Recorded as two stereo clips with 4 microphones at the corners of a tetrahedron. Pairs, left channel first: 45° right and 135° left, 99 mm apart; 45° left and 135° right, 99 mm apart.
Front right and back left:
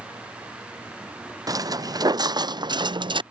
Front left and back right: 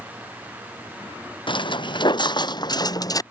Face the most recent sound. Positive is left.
turn(degrees=100)